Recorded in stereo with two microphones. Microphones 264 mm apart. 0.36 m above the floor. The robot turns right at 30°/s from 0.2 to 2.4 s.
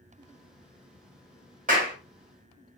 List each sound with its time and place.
1.7 s a clap: 35° right (ahead or behind), 0.9 m